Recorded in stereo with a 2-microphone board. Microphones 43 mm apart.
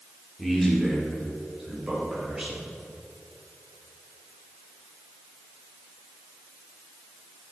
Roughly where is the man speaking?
Centre.